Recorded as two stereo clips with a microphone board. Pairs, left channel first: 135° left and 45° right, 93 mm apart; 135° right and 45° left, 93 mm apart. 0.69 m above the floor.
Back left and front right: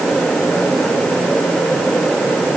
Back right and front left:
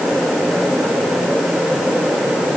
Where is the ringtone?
No ringtone in this recording.